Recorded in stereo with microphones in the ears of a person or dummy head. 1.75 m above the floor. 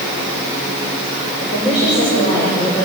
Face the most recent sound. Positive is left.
turn(degrees=30)  # may be behind; listen again after turning